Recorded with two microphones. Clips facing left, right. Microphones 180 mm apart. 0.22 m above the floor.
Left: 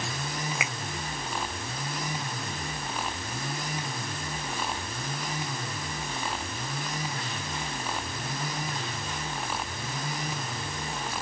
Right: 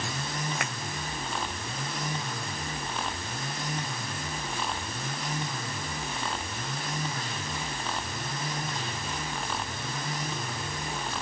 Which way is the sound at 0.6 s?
5° left (ahead or behind).